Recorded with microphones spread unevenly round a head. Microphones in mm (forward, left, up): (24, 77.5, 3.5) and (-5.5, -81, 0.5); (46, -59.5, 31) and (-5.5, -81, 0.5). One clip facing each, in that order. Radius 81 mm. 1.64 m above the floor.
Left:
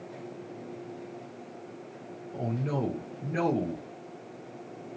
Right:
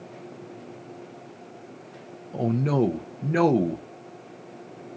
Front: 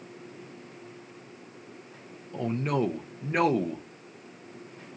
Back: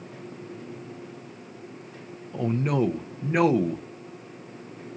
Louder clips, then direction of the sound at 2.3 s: Right 8 dB, back 3 dB; 75° right.